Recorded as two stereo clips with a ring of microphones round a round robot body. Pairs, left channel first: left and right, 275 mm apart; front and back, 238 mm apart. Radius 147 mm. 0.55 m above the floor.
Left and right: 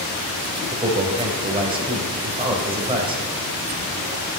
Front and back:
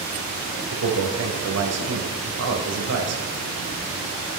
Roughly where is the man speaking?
Behind.